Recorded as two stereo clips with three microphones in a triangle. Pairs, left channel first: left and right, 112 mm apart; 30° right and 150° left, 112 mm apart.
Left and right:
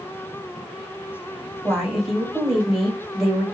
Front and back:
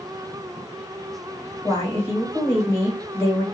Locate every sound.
1.6 s a woman speaking: 10° right, 1.3 m